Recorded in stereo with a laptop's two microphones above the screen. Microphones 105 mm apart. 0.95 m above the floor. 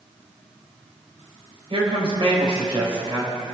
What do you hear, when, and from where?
1.7 s a woman speaking: 55° right (ahead or behind), 4.5 m